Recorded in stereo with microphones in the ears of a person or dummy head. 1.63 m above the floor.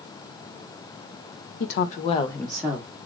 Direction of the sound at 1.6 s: 60° left (ahead or behind).